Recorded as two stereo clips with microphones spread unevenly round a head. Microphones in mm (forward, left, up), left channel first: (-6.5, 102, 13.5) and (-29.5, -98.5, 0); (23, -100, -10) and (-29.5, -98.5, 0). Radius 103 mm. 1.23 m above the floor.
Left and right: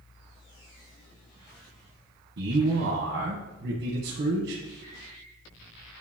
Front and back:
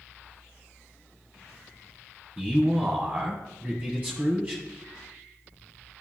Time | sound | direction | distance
2.4 | a man speaking | 110° right | 1.3 m